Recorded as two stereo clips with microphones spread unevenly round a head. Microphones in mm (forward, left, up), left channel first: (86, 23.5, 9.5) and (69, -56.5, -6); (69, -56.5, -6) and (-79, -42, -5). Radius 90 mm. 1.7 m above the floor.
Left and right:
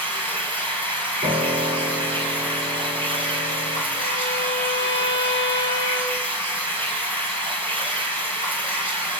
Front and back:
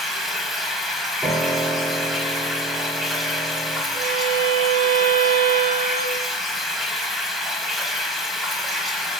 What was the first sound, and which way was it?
Running water, 95° right.